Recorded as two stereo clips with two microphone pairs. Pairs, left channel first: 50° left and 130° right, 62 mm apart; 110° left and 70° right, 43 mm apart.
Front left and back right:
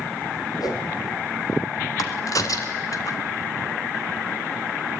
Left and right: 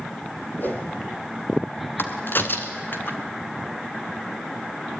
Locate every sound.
0.6 s a whoosh: 65° left, 3.5 m
2.0 s a crack: 75° left, 2.5 m